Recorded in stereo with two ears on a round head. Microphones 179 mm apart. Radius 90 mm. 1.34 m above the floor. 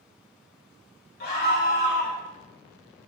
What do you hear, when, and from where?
1.2 s a scream: 50° left (ahead or behind), 2.5 m